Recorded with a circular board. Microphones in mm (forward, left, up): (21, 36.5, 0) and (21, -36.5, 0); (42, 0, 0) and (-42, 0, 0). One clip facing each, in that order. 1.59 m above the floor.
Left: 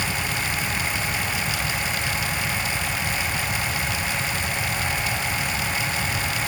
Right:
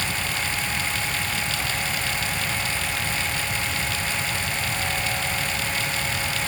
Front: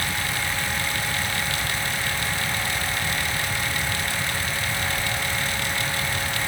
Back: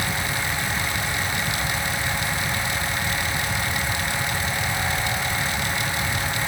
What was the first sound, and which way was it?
Only background noise.